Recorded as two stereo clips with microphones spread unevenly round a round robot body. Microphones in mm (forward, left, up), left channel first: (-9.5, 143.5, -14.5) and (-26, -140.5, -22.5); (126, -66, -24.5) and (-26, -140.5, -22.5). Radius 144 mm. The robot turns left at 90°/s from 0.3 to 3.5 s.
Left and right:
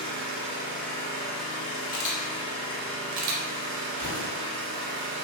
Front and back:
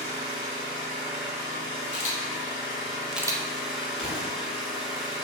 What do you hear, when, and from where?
0.0 s an engine running: 140° right, 1.0 m; by 5.2 s 65° right, 1.0 m
1.9 s a camera shutter: 45° left, 0.5 m; by 3.5 s 95° right, 0.5 m
4.0 s an explosion: 50° right, 1.3 m